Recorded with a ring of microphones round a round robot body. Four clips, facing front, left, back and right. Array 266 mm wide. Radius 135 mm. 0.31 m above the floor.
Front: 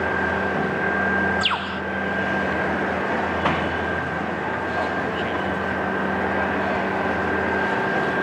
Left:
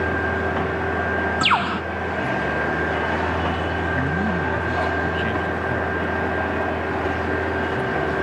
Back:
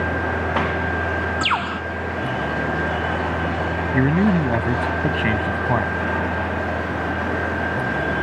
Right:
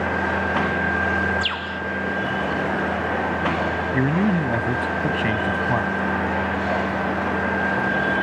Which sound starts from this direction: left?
A bird, at 1.4 s.